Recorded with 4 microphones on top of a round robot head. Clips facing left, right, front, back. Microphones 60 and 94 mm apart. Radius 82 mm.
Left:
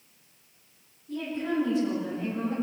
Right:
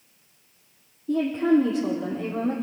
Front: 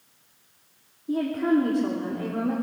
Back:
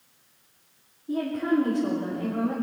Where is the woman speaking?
75° right, 4 m; by 2.5 s 65° right, 4.5 m.